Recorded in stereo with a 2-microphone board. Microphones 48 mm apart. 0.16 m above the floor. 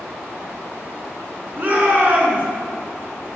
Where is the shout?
40° right (ahead or behind), 1.9 m.